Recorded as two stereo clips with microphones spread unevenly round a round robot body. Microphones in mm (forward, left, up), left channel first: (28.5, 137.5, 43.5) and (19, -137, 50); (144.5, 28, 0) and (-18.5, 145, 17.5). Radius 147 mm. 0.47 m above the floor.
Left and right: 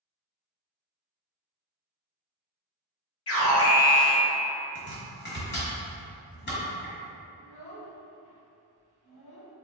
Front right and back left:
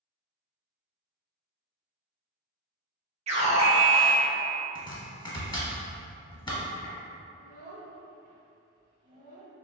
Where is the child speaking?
95° left, 1.3 m.